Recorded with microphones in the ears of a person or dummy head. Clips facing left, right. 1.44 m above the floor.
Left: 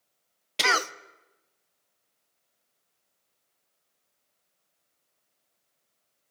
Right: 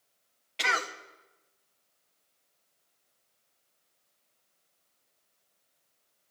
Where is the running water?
No running water in this recording.